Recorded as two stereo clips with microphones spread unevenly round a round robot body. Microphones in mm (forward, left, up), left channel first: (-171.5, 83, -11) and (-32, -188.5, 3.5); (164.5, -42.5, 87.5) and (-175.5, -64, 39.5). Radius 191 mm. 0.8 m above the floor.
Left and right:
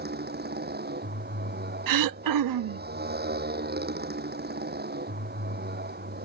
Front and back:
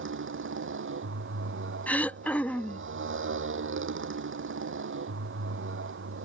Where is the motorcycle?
120° right.